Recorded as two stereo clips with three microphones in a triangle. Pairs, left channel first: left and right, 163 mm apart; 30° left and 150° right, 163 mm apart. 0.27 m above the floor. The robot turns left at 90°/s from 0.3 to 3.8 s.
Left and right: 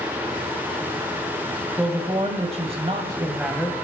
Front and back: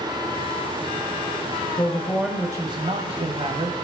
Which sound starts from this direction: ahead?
A man speaking, at 1.8 s.